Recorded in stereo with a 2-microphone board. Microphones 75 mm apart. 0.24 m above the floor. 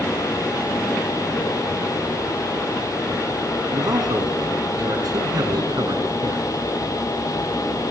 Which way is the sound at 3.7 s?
65° right (ahead or behind).